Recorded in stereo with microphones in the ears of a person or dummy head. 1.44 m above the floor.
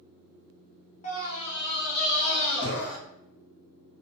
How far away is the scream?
About 0.7 m.